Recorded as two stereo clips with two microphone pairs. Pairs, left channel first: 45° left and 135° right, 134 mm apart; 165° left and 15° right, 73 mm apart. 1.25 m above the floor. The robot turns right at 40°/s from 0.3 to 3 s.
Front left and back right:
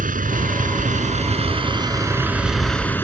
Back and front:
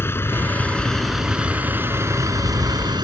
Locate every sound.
0.0 s a vehicle: 140° right; by 3.0 s 30° right